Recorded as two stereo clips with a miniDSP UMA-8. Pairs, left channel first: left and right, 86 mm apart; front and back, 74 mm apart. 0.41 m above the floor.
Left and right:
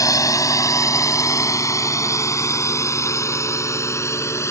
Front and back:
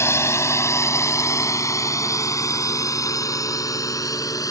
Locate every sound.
0.0 s a drone: 45° left; by 4.5 s 35° left